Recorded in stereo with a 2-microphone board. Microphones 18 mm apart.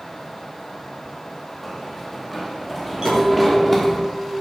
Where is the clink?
55° right (ahead or behind), 5 m.